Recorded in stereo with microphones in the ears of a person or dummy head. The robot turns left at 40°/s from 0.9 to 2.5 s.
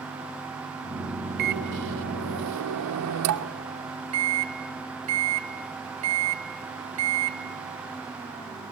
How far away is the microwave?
About 0.9 m.